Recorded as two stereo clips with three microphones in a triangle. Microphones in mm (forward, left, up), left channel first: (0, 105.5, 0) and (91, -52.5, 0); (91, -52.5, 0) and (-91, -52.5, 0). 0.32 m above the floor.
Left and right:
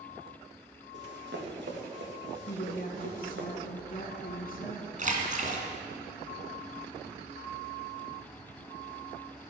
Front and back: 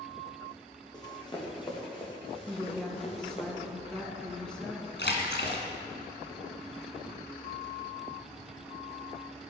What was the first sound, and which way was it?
Running footsteps, 70° right.